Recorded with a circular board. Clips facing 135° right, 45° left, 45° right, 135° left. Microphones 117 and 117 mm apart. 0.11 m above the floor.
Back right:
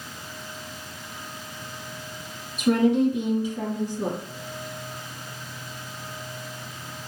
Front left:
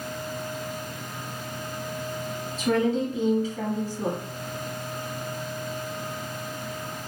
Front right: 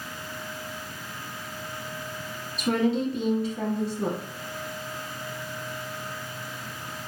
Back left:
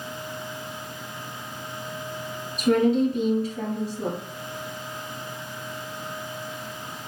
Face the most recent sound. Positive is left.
turn(degrees=155)